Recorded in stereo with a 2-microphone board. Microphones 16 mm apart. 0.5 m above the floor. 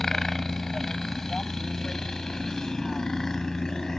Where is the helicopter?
25° left (ahead or behind); by 4.0 s 40° left (ahead or behind).